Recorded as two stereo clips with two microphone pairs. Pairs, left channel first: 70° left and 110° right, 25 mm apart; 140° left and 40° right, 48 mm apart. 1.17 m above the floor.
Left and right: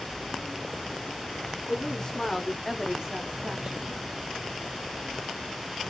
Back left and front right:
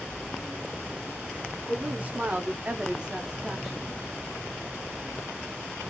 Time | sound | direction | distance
1.7 | a woman speaking | 15° left | 1.1 m